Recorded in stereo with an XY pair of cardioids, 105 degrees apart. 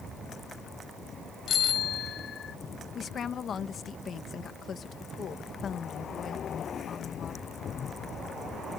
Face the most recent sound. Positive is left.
turn(degrees=50)